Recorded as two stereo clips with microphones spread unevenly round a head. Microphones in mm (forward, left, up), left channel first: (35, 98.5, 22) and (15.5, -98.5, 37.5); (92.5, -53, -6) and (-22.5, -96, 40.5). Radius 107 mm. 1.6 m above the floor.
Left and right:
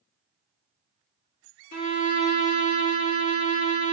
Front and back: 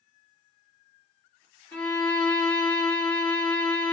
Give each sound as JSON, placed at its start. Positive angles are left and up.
{"t": 1.7, "sound": "a violin", "azimuth_deg": 125, "distance_m": 1.3}